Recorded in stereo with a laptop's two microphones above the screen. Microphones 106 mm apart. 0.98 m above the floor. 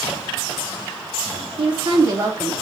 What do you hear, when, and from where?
1.6 s a woman speaking: 55° right (ahead or behind), 0.7 m; by 2.6 s 5° right (ahead or behind), 0.7 m